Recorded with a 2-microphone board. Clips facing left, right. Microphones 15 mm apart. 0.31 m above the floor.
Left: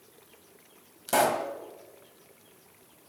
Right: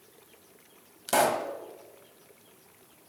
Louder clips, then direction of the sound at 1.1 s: Even; 15° right (ahead or behind).